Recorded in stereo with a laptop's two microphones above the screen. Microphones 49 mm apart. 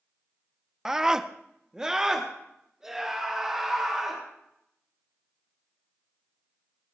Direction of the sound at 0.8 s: 10° right (ahead or behind).